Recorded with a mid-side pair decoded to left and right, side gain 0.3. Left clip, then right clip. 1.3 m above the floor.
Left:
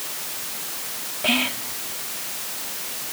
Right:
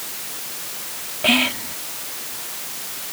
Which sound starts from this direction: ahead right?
Whispering, at 1.2 s.